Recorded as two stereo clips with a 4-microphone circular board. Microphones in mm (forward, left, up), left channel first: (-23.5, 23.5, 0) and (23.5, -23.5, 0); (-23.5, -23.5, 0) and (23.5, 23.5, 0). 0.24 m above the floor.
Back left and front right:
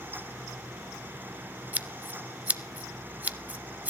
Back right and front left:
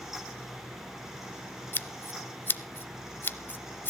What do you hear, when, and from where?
1.7 s scissors: 100° right, 0.6 m